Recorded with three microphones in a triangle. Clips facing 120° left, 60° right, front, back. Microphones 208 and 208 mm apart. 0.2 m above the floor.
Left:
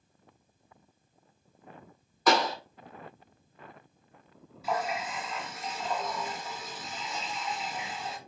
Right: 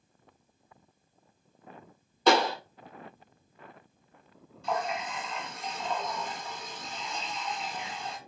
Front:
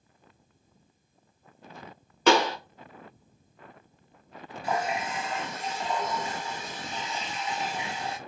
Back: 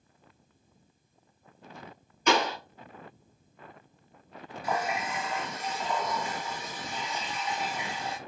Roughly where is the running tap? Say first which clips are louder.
Even, front 2 dB; ahead left.